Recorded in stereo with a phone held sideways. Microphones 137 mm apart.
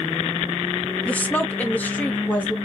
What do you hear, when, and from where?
1.1 s a woman speaking: 10° left (ahead or behind), 0.9 m; by 2.5 s 15° left (ahead or behind), 1.9 m